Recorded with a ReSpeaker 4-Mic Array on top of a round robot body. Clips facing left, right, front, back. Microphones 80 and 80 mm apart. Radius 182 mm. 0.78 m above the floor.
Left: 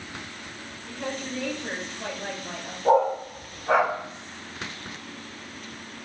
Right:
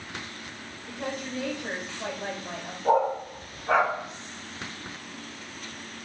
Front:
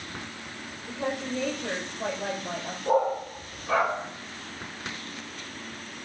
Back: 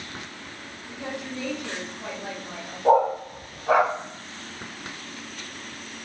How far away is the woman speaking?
About 3 m.